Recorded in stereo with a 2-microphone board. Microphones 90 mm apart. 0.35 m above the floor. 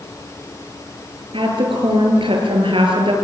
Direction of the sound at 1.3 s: 70° right (ahead or behind).